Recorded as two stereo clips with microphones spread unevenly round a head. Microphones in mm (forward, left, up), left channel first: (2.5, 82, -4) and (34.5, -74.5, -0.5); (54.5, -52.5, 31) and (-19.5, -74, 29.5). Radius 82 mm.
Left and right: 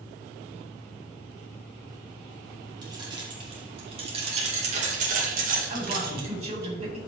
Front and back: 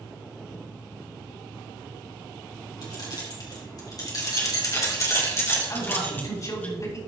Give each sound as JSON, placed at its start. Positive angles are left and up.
{"t": 2.8, "sound": "keys jangling", "azimuth_deg": -15, "distance_m": 3.5}
{"t": 5.7, "sound": "a man speaking", "azimuth_deg": -30, "distance_m": 4.5}